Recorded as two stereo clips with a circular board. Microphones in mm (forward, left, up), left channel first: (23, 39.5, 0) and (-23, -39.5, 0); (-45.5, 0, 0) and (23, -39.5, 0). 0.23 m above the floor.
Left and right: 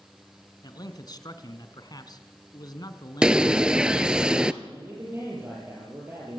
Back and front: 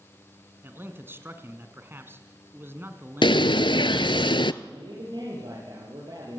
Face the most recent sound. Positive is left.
turn(degrees=-55)